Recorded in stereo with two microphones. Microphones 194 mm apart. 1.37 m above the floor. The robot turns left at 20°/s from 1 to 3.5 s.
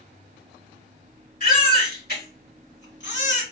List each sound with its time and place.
1.4 s a baby crying: 45° left (ahead or behind), 2 m; by 3.4 s 80° left, 2 m